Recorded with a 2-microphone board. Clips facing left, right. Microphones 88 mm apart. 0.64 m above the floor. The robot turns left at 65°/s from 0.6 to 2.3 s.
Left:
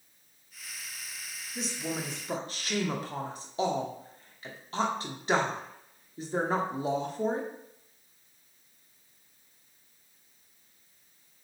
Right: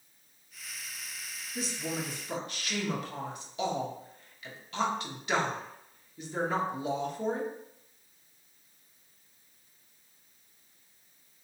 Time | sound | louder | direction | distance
1.6 | a woman speaking | even | 5° right (ahead or behind) | 0.9 m